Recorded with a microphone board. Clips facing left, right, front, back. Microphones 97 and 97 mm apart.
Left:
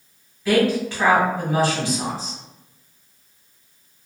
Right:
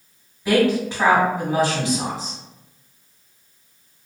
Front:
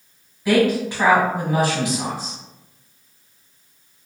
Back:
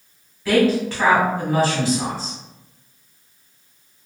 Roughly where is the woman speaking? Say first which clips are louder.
Right 1 dB, even; ahead right.